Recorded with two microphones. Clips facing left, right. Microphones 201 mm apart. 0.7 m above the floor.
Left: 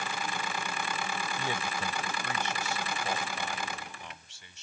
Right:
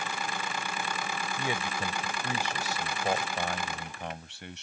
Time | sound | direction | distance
1.4 | a man speaking | 10° right (ahead or behind) | ?